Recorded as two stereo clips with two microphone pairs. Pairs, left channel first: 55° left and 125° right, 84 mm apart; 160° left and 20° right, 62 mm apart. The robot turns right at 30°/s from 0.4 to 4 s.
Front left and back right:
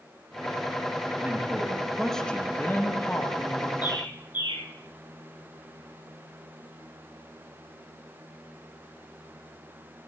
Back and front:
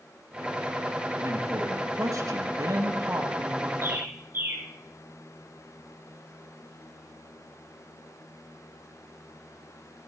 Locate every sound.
1.2 s a man speaking: 60° right, 3 m; by 3.7 s 20° left, 3 m
3.8 s a bird: 25° left, 8 m; by 4.6 s 30° left, 8 m